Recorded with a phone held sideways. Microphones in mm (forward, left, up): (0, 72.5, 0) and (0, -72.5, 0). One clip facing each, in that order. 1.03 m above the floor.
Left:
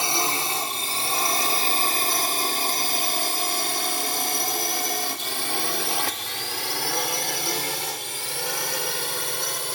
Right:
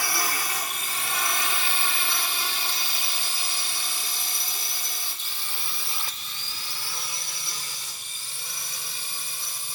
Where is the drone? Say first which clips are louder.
Left 4 dB; 25° left (ahead or behind); by 9.8 s 75° left (ahead or behind).